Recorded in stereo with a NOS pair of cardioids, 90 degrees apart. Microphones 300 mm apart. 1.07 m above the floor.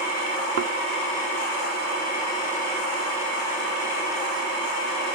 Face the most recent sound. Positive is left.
turn(degrees=-55)